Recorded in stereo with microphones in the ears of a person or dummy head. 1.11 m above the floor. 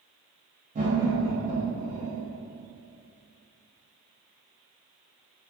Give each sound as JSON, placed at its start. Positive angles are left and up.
{"t": 0.8, "sound": "laughter", "side_deg": -40, "distance_m": 0.7}